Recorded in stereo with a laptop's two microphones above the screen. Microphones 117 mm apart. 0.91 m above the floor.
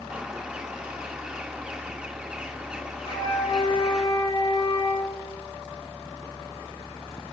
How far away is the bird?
About 1.4 m.